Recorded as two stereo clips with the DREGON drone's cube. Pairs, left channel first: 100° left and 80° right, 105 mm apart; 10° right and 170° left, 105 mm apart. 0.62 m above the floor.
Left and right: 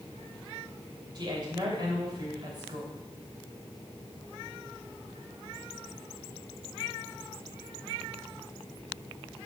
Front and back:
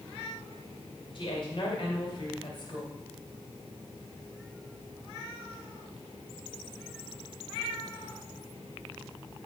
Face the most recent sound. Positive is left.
turn(degrees=-40)